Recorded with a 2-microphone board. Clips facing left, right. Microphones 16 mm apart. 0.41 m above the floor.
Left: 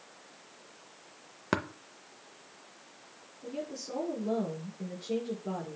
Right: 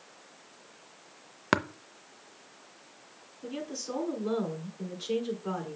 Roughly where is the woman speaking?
Right.